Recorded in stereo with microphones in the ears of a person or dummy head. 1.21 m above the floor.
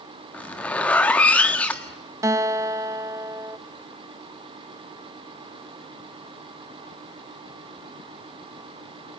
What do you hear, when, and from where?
0.3 s a zipper: centre (ahead or behind), 1.5 m
2.2 s a guitar: 10° right (ahead or behind), 0.9 m